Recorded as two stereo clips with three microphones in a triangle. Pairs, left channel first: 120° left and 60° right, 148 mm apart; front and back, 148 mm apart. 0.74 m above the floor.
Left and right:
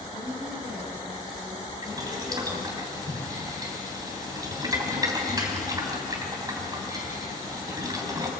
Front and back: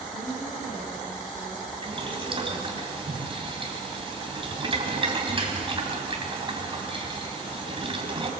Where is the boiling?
125° right, 3 m.